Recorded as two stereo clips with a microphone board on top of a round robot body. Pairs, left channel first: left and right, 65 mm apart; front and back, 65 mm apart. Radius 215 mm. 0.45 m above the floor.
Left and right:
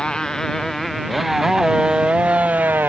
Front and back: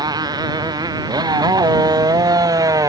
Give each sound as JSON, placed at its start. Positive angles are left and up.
{"t": 0.0, "sound": "a motorcycle", "azimuth_deg": 170}